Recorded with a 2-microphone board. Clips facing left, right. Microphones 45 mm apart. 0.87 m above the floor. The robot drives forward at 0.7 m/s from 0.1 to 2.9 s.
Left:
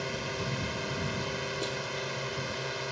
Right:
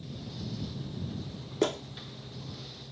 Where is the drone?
70° left (ahead or behind).